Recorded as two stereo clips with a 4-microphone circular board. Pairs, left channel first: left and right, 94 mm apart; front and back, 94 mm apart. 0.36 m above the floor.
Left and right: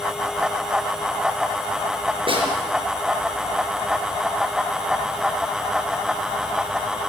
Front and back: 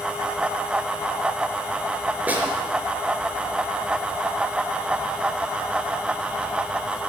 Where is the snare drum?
105° right, 4.5 m.